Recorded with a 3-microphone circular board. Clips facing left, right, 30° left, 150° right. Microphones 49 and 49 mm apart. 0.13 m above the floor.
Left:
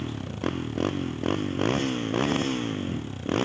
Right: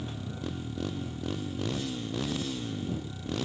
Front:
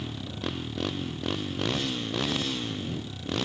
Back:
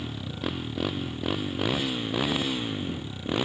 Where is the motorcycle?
125° left; by 3.5 s 135° left.